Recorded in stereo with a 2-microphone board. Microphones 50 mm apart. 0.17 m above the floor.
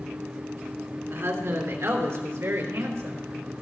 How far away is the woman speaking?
About 2.5 m.